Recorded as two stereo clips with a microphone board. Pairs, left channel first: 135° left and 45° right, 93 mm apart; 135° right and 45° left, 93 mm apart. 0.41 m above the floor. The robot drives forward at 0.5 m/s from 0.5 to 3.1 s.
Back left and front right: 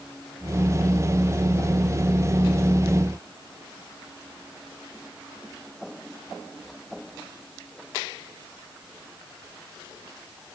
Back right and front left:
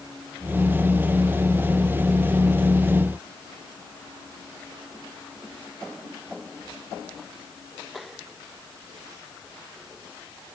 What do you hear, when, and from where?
Only background noise.